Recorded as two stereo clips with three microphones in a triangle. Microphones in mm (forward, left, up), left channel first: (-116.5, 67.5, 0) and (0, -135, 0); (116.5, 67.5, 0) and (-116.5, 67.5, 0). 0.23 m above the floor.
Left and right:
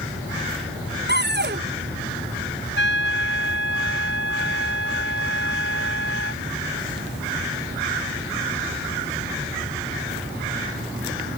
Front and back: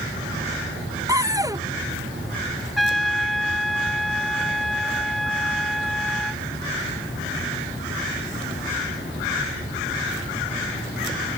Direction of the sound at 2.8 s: 90° left.